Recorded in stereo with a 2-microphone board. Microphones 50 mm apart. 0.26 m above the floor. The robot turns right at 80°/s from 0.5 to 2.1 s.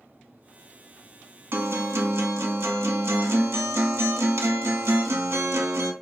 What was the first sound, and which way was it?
A guitar, 125° right.